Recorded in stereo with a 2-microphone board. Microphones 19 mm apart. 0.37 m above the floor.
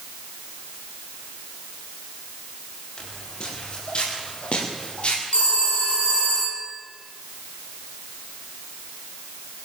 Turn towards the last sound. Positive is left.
turn(degrees=75)  # may be behind; listen again after turning